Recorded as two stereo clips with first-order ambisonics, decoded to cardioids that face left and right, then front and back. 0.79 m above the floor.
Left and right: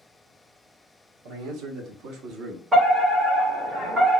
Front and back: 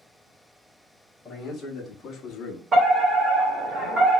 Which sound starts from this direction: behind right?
A fire alarm, at 2.7 s.